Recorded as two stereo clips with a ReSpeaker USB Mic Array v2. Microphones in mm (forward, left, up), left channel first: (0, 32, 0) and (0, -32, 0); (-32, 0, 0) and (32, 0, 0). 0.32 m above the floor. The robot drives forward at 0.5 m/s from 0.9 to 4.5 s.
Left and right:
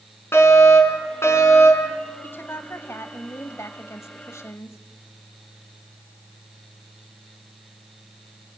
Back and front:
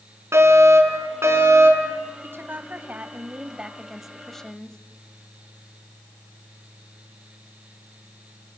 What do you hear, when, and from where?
0.3 s a fire alarm: 45° left, 5 m
2.2 s a woman speaking: 45° left, 1.5 m; by 4.8 s 100° left, 1.2 m